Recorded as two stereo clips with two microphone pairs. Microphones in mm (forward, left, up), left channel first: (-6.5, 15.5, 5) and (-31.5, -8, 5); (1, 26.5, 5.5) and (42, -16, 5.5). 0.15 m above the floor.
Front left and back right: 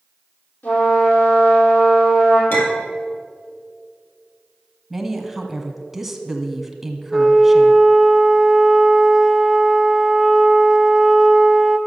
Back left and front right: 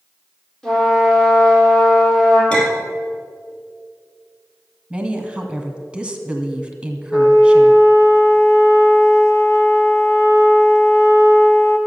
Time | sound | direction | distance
0.6 | a trumpet | 50° left | 4.5 m
2.5 | a clink | 60° left | 3 m
4.9 | a woman speaking | 70° right | 1.3 m
7.1 | a flute | 125° left | 1.3 m